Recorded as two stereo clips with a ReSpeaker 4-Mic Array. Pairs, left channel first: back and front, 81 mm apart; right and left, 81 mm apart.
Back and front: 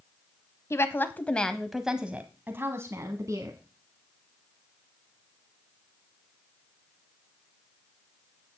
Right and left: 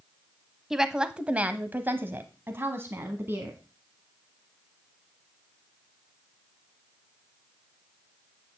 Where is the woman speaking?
170° left, 1.1 m; by 3.6 s 35° left, 1.8 m.